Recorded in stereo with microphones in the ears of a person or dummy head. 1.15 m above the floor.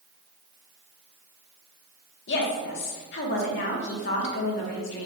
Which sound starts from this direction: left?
A woman speaking, at 2.3 s.